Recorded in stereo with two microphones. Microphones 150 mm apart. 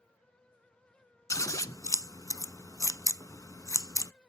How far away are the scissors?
About 0.5 m.